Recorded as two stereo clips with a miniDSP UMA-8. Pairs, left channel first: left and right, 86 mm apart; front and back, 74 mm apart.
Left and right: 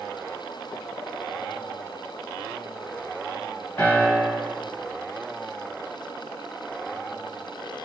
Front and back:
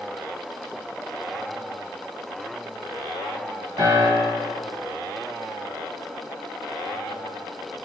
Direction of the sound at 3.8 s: 155° left.